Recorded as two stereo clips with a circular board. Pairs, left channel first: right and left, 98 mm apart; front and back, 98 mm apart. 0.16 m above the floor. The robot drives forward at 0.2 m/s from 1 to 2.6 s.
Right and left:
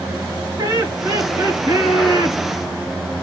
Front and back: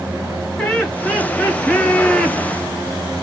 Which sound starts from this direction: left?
Laughter, at 0.6 s.